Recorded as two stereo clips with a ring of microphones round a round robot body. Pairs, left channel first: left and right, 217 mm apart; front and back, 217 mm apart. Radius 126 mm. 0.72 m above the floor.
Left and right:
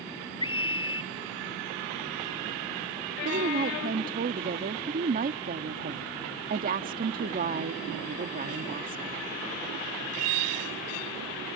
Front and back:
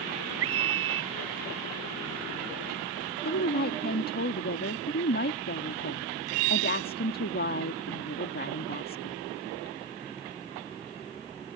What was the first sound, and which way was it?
A scream, 155° left.